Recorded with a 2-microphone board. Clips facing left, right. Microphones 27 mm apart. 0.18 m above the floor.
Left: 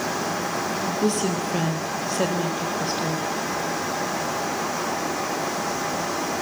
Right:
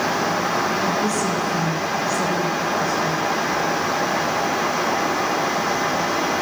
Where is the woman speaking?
45° left (ahead or behind), 3.5 m.